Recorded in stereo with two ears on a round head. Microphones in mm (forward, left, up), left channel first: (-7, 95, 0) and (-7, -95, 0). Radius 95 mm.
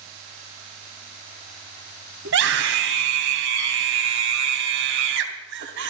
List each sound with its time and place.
2.2 s a scream: 60° right (ahead or behind), 3 m